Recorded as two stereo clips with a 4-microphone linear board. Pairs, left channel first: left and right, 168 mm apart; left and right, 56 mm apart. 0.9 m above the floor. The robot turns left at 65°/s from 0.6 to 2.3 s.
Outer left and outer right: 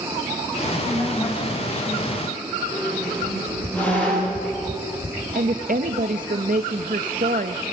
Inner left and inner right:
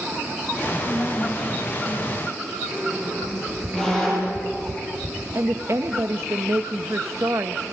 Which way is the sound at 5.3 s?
55° right (ahead or behind).